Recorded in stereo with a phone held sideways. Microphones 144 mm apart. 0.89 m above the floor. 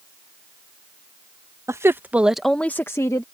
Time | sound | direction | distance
1.7 | a woman speaking | 20° right (ahead or behind) | ?